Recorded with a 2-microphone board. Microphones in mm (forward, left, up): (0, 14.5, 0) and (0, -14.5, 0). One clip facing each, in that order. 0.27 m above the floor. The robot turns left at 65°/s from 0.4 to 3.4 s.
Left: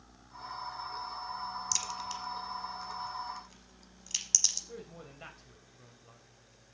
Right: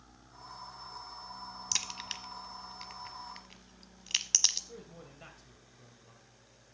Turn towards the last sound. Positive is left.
turn(degrees=20)  # may be behind; listen again after turning